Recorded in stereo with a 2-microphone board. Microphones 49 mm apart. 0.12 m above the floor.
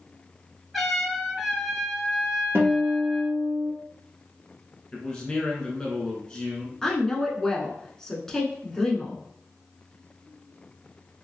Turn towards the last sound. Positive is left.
turn(degrees=10)  # may be behind; listen again after turning